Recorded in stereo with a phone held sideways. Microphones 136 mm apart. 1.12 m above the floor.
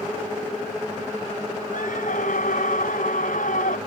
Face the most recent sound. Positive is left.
turn(degrees=75)  # may be behind; listen again after turning